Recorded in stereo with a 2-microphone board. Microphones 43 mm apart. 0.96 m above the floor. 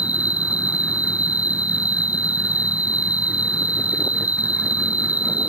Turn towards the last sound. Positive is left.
turn(degrees=-35)  # may be behind; listen again after turning